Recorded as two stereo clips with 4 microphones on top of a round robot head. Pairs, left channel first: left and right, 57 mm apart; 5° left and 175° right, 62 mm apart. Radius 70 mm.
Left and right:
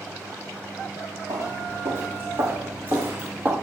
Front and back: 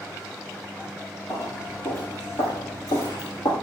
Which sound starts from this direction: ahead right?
Footsteps, at 1.3 s.